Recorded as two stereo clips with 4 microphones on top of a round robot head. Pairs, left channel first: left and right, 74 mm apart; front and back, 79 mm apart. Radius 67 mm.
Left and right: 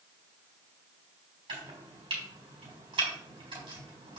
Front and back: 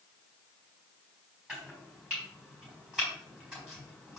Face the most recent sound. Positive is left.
turn(degrees=-100)